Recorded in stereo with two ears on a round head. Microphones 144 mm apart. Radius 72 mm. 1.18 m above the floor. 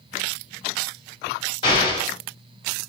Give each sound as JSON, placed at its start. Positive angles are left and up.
{"t": 1.6, "sound": "an explosion", "side_deg": 35, "distance_m": 2.5}